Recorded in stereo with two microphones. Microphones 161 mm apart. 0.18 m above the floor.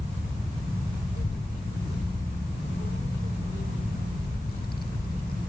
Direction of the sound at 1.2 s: 80° left.